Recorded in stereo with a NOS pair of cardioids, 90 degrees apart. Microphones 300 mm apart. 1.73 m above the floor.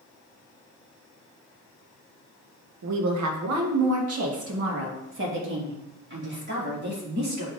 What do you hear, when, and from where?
2.8 s a woman speaking: 65° right, 1.7 m; by 7.5 s 30° right, 4 m